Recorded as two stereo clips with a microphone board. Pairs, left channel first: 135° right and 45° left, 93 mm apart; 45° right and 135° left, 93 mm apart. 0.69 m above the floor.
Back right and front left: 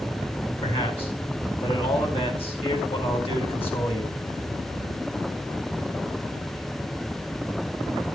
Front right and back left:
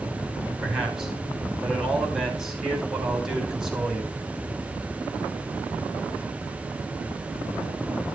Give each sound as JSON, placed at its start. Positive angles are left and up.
{"t": 0.6, "sound": "a man speaking", "azimuth_deg": -140, "distance_m": 4.0}